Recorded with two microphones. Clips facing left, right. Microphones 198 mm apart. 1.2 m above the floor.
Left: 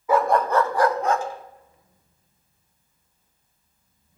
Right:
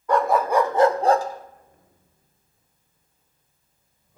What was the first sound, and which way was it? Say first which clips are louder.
A dog barking: even; 5° left (ahead or behind).